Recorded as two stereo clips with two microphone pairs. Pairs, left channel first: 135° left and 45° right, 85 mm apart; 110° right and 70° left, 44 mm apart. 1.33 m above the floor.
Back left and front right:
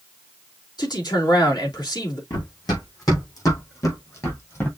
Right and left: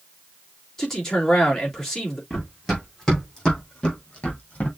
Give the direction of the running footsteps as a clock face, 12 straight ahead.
6 o'clock.